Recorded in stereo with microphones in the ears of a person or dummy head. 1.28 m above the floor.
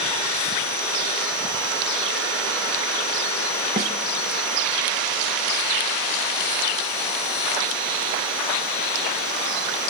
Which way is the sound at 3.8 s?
15° right (ahead or behind).